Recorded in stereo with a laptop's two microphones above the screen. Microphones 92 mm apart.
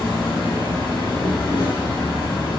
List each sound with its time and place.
0.0 s an insect: 65° left (ahead or behind), 1.3 m